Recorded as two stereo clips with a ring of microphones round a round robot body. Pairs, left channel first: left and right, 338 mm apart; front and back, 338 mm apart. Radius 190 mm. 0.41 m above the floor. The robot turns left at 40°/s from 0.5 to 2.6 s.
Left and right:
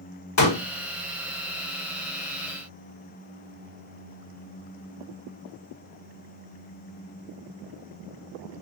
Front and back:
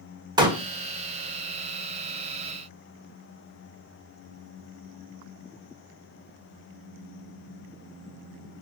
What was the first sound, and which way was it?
A pop, 105° left.